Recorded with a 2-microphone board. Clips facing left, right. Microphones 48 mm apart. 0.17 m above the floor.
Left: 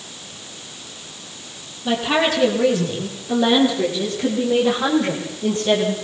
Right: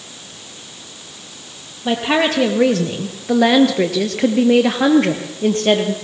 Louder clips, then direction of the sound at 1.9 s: Right 2 dB; 45° right (ahead or behind).